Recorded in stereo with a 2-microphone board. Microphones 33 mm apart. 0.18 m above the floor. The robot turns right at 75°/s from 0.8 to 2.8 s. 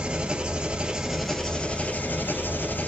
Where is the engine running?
30° right, 0.8 m; by 2.9 s 120° left, 0.8 m.